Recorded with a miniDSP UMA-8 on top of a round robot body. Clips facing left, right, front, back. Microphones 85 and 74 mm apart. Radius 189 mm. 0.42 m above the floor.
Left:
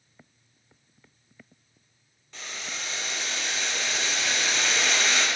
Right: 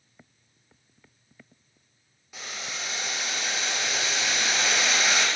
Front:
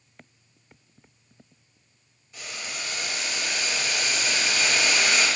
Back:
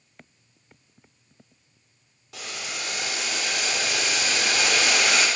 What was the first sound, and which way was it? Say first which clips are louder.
Boiling: right 1 dB, back 2 dB; 170° right.